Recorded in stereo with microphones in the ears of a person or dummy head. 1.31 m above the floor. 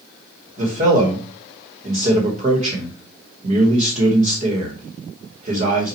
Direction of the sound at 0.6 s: 30° right (ahead or behind).